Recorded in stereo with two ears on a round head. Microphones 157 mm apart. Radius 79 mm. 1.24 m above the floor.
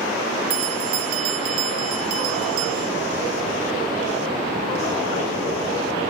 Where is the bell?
50° right (ahead or behind), 0.7 m.